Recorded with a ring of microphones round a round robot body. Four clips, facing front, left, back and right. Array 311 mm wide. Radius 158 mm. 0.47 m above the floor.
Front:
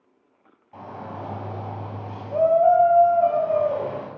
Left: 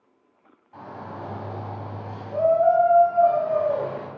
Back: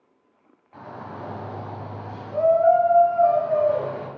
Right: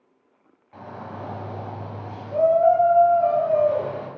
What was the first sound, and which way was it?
A shout, 35° right.